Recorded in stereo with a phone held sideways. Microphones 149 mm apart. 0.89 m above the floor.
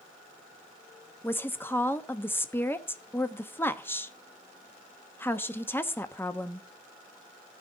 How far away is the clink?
No clink in this recording.